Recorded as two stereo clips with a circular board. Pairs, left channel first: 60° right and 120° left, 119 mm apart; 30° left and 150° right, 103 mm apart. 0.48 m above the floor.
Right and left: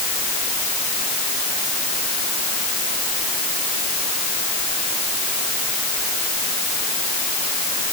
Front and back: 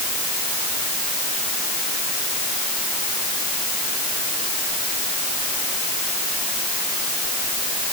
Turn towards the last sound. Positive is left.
No sound to turn to.